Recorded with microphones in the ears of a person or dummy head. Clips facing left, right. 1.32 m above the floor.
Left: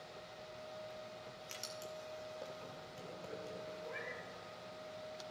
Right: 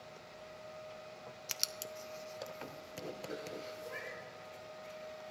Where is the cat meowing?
5° right (ahead or behind), 3.5 m.